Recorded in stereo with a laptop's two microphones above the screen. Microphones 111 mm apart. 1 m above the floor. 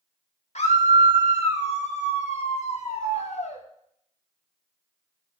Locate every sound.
0.6 s a scream: 80° left, 2 m